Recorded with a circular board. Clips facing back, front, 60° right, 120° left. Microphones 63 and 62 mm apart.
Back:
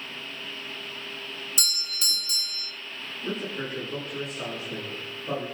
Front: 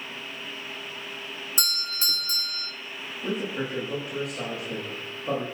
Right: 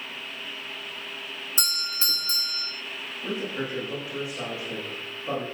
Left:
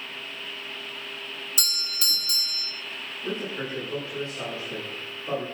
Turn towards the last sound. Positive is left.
turn(degrees=15)